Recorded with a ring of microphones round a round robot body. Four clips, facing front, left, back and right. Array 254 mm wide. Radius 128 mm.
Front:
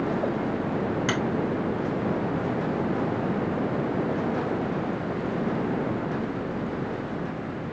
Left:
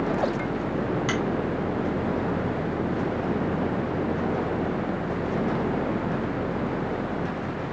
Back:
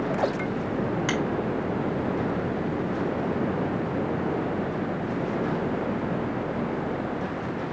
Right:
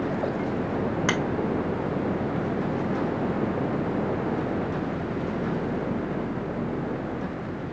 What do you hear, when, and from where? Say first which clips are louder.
1.1 s a finger snap: right 1 dB, front 1 dB; 90° right, 1.5 m